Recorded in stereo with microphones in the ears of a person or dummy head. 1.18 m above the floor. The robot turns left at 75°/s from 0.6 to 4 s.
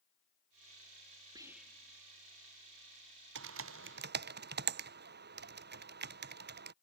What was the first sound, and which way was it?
Whispering, 20° right (ahead or behind).